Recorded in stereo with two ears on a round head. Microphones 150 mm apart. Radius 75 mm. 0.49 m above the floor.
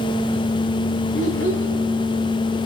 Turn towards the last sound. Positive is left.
turn(degrees=80)